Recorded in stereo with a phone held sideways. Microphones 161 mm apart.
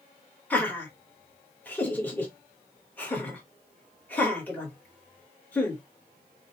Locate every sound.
0.5 s laughter: 10° left (ahead or behind), 1.4 m